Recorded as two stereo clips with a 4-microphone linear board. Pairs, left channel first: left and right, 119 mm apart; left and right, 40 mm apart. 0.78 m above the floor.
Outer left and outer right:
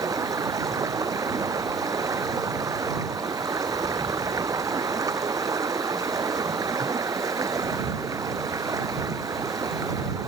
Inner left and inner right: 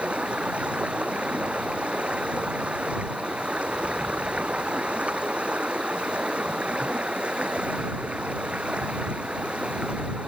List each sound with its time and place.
0.0 s running water: 30° right (ahead or behind)